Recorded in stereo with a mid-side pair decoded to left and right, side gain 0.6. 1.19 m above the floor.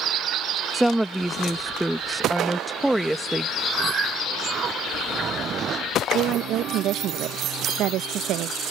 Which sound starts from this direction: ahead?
A woman speaking, at 0.7 s.